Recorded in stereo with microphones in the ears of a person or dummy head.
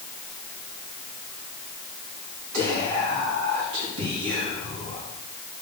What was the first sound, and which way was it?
Whispering, 80° right.